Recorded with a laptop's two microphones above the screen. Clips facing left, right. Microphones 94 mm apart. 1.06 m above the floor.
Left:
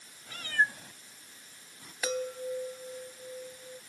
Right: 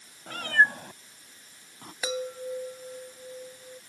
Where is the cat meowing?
60° right (ahead or behind); by 1.9 s 55° right (ahead or behind).